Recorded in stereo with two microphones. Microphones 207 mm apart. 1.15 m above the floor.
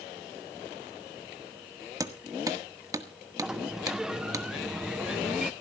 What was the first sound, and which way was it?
Hammering, 15° right (ahead or behind).